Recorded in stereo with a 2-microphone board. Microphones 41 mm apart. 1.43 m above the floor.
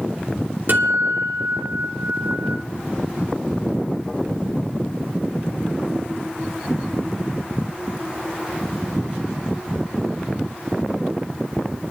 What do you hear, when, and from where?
0.7 s a guitar: 60° right (ahead or behind), 2.5 m